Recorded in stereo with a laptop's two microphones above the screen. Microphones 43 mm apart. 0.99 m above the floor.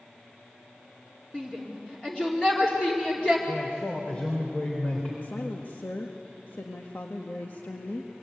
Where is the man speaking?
30° left (ahead or behind), 4 m.